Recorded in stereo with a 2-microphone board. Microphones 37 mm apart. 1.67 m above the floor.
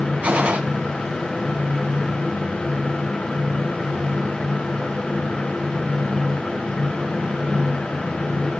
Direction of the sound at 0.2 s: 45° right (ahead or behind).